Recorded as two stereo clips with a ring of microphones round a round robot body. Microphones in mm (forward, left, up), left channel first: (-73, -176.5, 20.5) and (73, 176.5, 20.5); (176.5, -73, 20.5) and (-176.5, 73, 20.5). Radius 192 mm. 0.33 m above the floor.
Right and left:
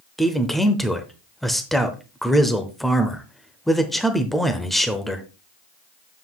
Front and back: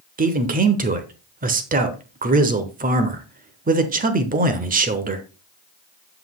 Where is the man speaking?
160° left, 0.9 m.